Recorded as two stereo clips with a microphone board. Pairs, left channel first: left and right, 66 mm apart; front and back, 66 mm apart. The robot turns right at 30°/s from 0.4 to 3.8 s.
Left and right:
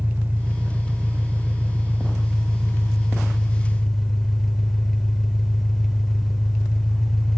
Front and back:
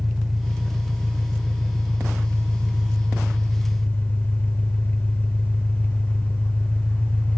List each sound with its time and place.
0.0 s an engine running: 90° right, 1.1 m; by 7.4 s 10° left, 1.1 m